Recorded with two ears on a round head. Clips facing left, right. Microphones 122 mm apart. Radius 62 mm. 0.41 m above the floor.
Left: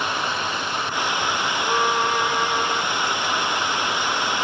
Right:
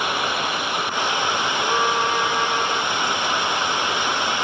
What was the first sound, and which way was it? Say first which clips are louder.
Running water: right 2 dB; 10° right (ahead or behind).